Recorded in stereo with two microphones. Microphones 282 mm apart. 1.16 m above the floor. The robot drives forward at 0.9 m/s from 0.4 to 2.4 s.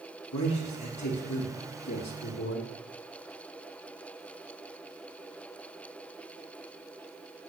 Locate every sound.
0.3 s a man speaking: 75° left (ahead or behind), 2 m; by 2.7 s 60° left (ahead or behind), 2.5 m